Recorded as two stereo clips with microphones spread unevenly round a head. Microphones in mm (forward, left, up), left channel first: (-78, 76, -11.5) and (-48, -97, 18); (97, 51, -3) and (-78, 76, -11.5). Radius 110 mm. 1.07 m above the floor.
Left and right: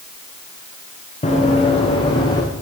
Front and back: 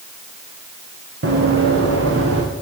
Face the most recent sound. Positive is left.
turn(degrees=170)